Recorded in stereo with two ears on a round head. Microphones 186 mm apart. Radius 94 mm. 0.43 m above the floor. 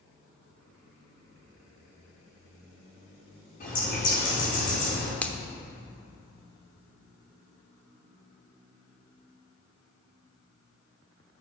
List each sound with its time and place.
3.6 s a bird: 40° left (ahead or behind), 5 m
5.2 s a finger snap: 10° left (ahead or behind), 0.8 m